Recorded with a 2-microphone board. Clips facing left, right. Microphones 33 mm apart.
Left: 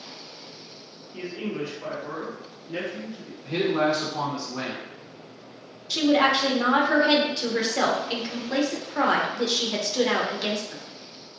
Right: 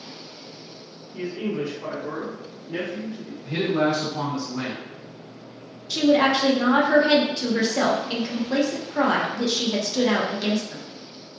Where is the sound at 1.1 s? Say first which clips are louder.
Right 3 dB; 35° left (ahead or behind), 1.4 m; by 3.3 s 30° right (ahead or behind), 2.5 m.